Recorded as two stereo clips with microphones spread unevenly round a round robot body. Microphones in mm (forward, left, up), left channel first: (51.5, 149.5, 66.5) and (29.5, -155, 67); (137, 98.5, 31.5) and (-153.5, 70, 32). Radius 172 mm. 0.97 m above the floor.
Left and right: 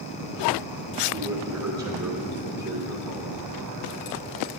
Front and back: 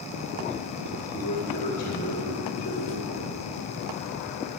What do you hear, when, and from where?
1.1 s a man speaking: 60° right, 1.8 m